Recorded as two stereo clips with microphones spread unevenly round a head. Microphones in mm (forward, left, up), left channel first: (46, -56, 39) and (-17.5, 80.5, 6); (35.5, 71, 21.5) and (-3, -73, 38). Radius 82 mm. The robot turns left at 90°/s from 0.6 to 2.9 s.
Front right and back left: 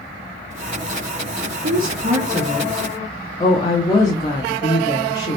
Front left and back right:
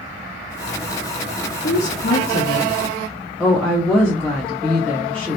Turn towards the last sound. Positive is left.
turn(degrees=-10)